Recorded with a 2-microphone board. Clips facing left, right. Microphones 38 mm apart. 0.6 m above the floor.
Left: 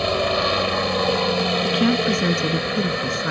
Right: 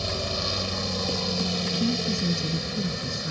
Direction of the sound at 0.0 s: 45° left (ahead or behind).